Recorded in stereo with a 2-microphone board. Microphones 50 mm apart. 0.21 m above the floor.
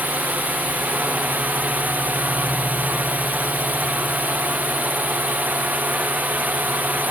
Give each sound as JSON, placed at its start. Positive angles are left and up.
{"t": 0.0, "sound": "a drone", "side_deg": -35}